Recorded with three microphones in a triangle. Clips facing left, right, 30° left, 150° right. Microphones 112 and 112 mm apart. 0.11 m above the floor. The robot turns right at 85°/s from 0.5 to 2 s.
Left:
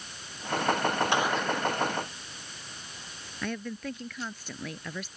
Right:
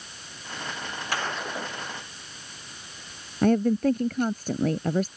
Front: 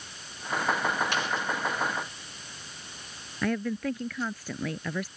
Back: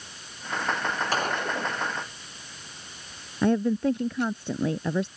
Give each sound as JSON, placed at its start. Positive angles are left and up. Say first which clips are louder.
{"t": 1.1, "sound": "a gunshot", "louder": "left 4 dB, back 3 dB", "azimuth_deg": 160}
{"t": 3.4, "sound": "a woman speaking", "louder": "right 14 dB, back 6 dB", "azimuth_deg": -100}